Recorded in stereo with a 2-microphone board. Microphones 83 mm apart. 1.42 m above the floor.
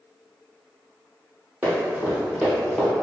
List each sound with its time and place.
1.6 s running footsteps: 25° right (ahead or behind), 1.8 m; by 2.9 s 5° left (ahead or behind), 1.4 m